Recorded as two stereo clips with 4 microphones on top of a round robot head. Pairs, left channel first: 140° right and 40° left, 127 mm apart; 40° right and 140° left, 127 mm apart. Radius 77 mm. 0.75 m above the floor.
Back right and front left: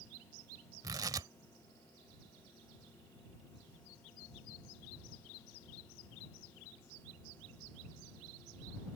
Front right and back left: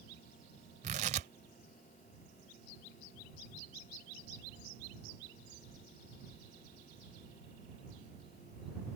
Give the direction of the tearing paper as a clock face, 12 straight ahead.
9 o'clock.